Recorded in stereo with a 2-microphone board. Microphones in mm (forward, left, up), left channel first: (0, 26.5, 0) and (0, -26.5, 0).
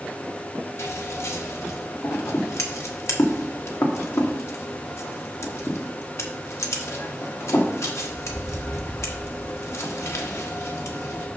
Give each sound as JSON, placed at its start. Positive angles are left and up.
{"t": 0.8, "sound": "scissors", "side_deg": 65, "distance_m": 1.3}